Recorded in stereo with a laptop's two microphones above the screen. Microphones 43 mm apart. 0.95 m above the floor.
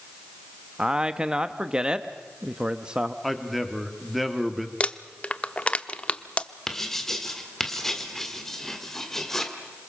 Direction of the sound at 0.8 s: 20° right (ahead or behind).